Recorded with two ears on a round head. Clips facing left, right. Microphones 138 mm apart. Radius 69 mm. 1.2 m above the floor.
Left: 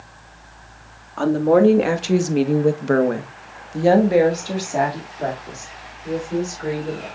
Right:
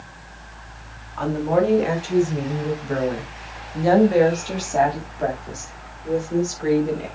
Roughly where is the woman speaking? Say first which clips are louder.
Left 5 dB; left.